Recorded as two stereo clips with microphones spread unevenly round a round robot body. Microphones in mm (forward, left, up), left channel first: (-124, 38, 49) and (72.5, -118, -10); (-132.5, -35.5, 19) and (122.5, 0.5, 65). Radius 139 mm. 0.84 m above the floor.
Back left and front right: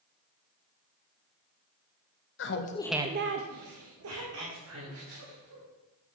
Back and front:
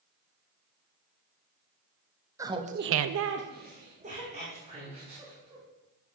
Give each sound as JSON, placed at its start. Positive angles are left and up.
{"t": 2.4, "sound": "laughter", "azimuth_deg": 90, "distance_m": 0.9}